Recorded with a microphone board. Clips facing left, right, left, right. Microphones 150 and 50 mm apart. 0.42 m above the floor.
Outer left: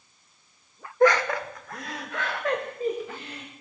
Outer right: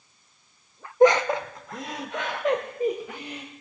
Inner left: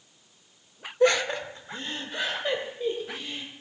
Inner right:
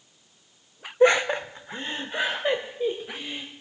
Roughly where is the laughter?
Right.